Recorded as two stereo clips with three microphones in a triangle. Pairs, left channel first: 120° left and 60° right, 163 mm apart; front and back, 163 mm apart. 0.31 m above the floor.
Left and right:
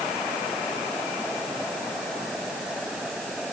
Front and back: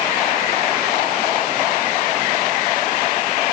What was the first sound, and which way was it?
Only background noise.